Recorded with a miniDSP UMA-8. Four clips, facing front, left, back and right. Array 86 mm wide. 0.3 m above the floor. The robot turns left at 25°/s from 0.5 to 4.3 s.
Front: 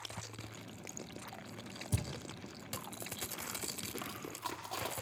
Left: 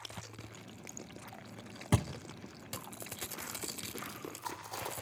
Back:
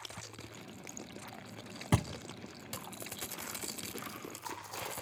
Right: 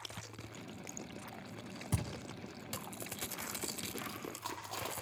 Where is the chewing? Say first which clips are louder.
Left 3 dB, front 1 dB; 30° right, 6 m; by 4.9 s 35° right, 6 m.